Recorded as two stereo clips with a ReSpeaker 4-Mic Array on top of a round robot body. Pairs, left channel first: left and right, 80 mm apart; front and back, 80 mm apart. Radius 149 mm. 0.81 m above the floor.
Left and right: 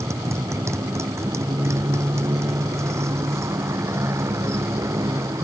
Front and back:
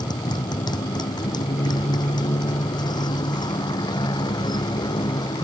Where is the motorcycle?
35° right.